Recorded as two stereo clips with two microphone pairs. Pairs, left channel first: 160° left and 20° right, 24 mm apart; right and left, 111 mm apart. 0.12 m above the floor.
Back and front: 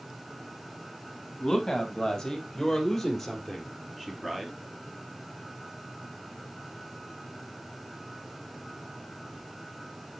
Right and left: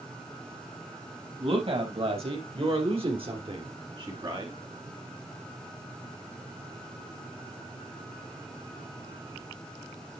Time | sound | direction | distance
1.4 | a woman speaking | 100° left | 4 m